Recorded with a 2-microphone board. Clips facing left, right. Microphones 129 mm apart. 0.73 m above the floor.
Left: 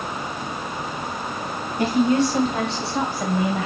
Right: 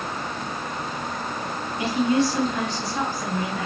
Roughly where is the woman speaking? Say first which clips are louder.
Left 3 dB; left.